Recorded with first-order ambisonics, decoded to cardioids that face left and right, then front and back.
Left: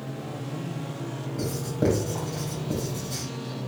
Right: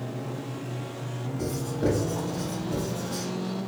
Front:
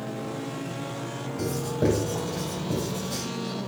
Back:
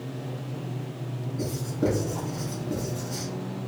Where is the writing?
50° left, 1.7 m.